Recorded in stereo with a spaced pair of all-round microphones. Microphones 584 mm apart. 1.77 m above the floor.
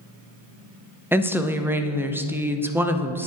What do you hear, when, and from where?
1.1 s a woman speaking: 5° right (ahead or behind), 0.6 m